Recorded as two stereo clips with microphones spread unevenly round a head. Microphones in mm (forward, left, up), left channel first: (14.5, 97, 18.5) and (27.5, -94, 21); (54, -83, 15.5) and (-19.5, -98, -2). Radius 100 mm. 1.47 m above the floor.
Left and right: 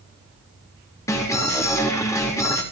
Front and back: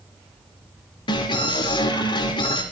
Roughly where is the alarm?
Ahead.